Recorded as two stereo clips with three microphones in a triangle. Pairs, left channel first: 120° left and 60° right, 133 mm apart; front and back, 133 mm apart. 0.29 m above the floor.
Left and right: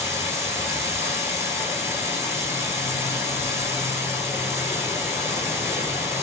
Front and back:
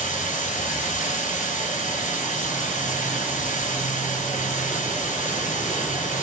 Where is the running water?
15° left, 0.8 m.